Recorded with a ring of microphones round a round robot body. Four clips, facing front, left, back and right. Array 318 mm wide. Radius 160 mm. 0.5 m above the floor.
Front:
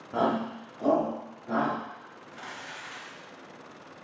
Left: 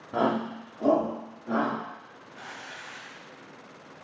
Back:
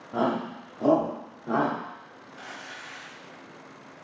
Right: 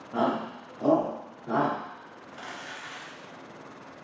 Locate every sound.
0.1 s a shout: 80° left, 0.8 m; by 1.8 s 160° right, 1.3 m
2.3 s crumpling: 65° right, 1.5 m